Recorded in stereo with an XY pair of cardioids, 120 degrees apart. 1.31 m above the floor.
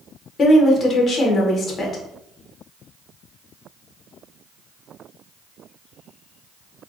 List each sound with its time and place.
0.4 s a woman speaking: 35° left, 0.9 m